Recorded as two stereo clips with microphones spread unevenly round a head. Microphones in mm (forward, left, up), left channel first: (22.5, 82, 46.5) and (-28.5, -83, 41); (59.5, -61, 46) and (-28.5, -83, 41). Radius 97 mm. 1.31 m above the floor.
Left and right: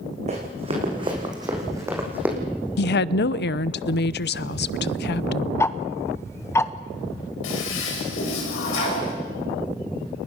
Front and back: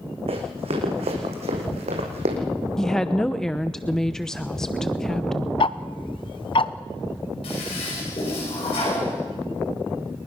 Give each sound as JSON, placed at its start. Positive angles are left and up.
{"t": 0.3, "sound": "running footsteps", "azimuth_deg": -160, "distance_m": 5.5}
{"t": 2.8, "sound": "a woman speaking", "azimuth_deg": 100, "distance_m": 0.7}
{"t": 5.6, "sound": "ticking", "azimuth_deg": 0, "distance_m": 0.9}
{"t": 7.4, "sound": "a toilet flushing", "azimuth_deg": 60, "distance_m": 7.5}